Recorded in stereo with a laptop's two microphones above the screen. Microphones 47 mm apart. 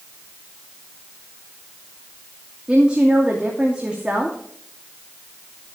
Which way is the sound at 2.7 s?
20° right (ahead or behind).